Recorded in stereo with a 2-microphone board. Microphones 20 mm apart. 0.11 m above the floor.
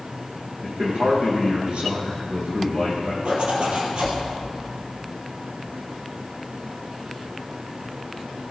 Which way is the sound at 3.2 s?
60° right (ahead or behind).